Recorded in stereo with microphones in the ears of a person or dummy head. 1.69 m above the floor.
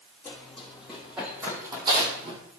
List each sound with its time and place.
0.2 s running footsteps: 10° left (ahead or behind), 4 m; by 2.4 s 35° right (ahead or behind), 3 m